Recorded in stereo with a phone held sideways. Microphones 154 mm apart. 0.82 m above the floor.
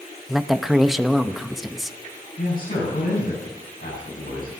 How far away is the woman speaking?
About 0.7 m.